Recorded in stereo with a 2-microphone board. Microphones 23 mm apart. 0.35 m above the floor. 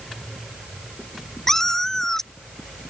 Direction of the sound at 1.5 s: 20° left (ahead or behind).